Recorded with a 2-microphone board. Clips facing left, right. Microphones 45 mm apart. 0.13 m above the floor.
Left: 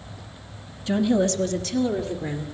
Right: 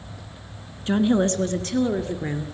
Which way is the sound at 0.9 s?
35° right (ahead or behind).